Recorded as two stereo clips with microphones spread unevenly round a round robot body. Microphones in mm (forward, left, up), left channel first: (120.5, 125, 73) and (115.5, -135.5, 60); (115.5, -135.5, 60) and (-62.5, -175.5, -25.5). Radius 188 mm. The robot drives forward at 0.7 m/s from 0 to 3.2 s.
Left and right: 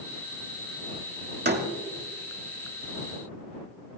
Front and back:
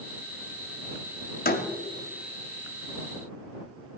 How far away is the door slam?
About 2.0 m.